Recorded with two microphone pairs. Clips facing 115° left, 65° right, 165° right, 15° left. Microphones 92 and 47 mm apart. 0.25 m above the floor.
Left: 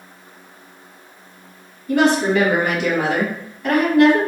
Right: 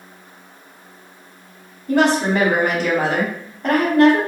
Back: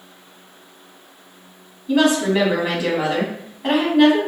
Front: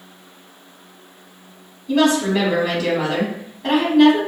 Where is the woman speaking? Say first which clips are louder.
Even, even; 95° right, 1.4 m.